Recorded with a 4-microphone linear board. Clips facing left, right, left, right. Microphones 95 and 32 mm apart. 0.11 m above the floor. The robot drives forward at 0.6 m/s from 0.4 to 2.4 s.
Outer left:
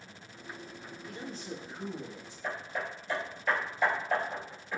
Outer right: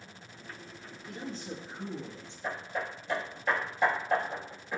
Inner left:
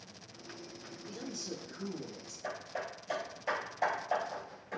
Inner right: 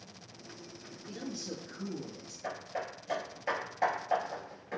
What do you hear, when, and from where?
1.1 s a man speaking: 35° right (ahead or behind), 1.3 m; by 2.3 s 25° right (ahead or behind), 1.5 m
2.4 s hammering: 20° right (ahead or behind), 1.9 m